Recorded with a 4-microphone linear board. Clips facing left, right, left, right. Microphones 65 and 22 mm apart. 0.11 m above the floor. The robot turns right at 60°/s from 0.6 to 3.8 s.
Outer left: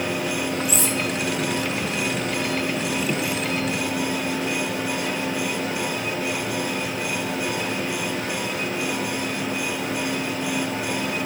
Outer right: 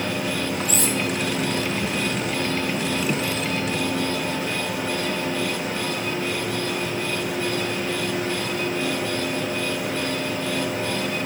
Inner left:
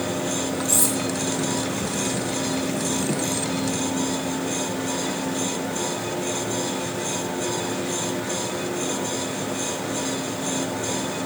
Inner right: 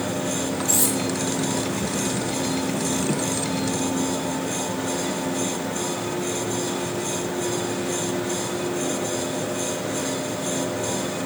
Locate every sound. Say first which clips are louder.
0.7 s cutlery clinking: even, even; 60° right (ahead or behind), 2 m; by 0.9 s 50° right (ahead or behind), 2 m